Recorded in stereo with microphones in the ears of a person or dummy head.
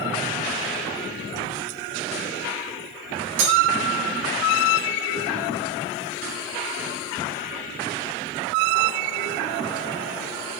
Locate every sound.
3.4 s cutlery clinking: 70° right (ahead or behind), 3 m